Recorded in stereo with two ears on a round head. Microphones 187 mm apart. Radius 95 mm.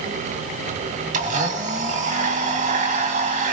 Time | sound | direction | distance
1.1 | a blender | 45° right (ahead or behind) | 1.9 m